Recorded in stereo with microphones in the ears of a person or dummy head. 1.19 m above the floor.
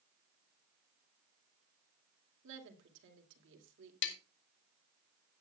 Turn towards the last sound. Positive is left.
turn(degrees=70)  # may be behind; listen again after turning